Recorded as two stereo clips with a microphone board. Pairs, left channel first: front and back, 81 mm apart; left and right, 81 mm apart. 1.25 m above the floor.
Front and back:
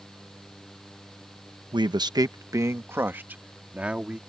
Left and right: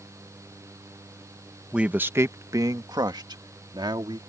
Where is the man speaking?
170° right; by 4.2 s 105° right.